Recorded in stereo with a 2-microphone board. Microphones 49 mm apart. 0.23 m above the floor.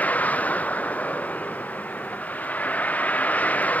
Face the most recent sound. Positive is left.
turn(degrees=30)  # may be behind; listen again after turning